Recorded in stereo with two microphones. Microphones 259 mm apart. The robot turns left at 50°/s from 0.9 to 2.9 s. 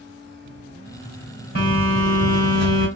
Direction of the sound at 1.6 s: 120° left.